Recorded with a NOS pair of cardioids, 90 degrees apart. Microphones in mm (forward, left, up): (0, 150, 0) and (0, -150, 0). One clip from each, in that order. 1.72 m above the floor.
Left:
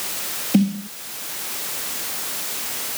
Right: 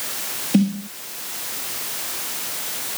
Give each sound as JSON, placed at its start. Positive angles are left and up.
{"t": 0.5, "sound": "a snare drum", "azimuth_deg": 0}